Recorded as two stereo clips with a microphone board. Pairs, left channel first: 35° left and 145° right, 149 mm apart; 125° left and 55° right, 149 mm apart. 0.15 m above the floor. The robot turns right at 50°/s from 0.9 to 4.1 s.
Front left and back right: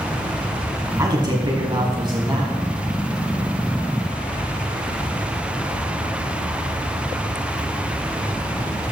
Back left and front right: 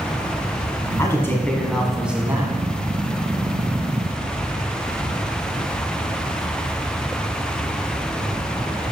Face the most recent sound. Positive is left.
turn(degrees=-30)